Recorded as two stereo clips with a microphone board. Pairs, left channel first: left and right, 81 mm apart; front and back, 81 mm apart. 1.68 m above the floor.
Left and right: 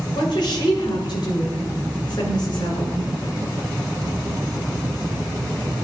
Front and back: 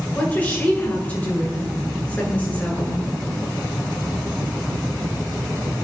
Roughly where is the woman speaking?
Left.